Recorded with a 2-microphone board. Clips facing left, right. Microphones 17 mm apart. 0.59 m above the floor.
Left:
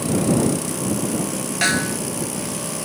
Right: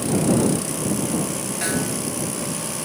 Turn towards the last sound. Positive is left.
turn(degrees=40)  # may be behind; listen again after turning